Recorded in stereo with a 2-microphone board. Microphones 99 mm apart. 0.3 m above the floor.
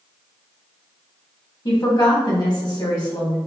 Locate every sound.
1.6 s a woman speaking: 45° left (ahead or behind), 1.9 m